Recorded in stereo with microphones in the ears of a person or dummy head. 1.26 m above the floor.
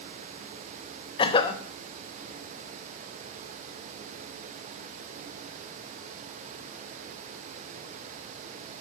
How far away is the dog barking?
I don't hear a dog barking.